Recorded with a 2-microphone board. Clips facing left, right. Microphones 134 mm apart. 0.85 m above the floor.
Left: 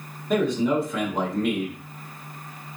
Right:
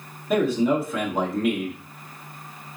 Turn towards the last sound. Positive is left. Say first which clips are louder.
# right 1 dB
turn(degrees=0)  # may be behind; listen again after turning